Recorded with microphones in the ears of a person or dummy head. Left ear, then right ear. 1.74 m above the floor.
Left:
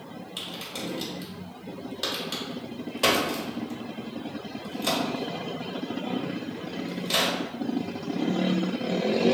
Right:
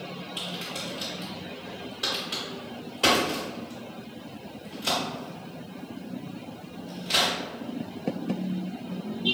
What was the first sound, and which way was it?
A crack, 25° left (ahead or behind).